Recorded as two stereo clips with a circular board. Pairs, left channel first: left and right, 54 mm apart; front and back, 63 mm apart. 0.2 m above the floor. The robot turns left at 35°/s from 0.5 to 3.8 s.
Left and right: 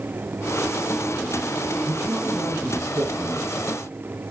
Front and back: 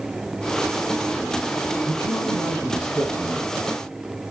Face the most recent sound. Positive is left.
turn(degrees=-115)